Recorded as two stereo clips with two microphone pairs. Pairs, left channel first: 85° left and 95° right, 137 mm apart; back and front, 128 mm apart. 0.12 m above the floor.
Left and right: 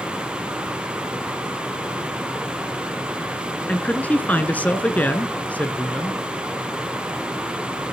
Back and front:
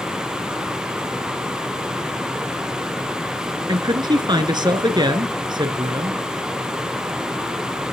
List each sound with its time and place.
3.7 s a man speaking: 15° left, 2 m